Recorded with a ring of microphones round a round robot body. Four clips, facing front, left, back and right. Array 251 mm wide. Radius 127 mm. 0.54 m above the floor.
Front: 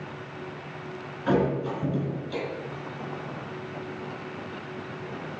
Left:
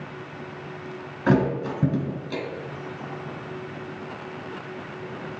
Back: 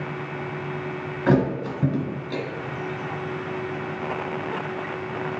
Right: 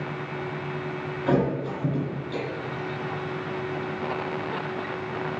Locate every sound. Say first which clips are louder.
1.3 s a thud: left 2 dB, back 3 dB; 130° left, 1.7 m